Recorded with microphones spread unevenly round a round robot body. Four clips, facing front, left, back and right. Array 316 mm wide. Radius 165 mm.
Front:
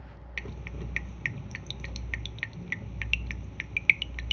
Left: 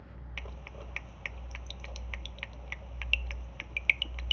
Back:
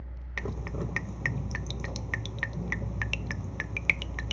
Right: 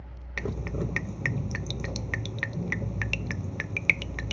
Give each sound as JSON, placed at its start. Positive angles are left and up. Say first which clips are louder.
{"t": 0.4, "sound": "dripping", "louder": "right 16 dB, back 7 dB", "azimuth_deg": -105}